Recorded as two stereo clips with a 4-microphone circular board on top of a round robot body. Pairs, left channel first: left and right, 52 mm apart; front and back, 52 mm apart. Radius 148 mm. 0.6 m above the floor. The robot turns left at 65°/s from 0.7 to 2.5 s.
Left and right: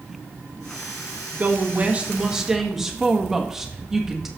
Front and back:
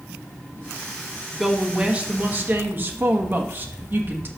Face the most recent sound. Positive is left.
turn(degrees=-170)